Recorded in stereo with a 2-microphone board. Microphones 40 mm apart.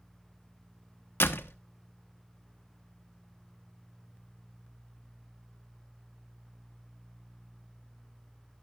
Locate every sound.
1.2 s a door slam: 70° left (ahead or behind), 1.1 m